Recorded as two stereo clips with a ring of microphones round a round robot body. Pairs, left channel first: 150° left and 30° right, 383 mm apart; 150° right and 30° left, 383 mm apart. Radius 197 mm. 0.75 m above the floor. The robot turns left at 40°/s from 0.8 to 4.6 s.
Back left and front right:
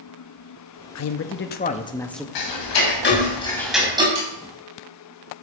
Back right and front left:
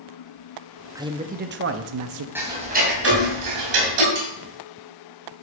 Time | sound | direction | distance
0.9 | a man speaking | 110° left | 0.8 m
2.4 | ticking | 115° left | 2.5 m
4.2 | sawing | 15° right | 5.5 m